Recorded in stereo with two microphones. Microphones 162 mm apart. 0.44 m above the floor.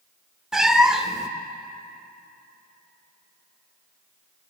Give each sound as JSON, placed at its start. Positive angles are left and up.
{"t": 0.5, "sound": "a cat meowing", "side_deg": -5, "distance_m": 0.5}